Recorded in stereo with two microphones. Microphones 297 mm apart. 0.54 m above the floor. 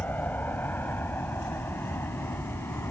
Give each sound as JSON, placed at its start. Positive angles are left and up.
{"t": 0.0, "sound": "an aircraft", "side_deg": 5}